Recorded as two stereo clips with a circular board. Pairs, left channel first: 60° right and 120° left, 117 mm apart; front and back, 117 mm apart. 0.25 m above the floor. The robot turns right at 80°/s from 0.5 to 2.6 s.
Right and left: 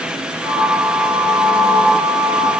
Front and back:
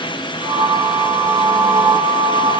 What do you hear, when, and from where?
Only background noise.